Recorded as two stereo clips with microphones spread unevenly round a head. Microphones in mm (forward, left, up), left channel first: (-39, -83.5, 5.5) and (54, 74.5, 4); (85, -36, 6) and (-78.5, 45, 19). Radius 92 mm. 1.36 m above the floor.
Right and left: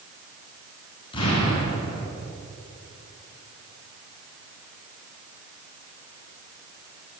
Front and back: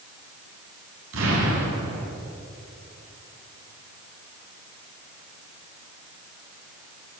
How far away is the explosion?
About 9 m.